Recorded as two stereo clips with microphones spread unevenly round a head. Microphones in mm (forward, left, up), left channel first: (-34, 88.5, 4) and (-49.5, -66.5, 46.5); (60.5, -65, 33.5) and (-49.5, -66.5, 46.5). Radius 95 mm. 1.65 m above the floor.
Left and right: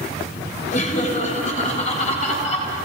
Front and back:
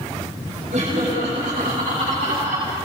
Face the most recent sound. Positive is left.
turn(degrees=140)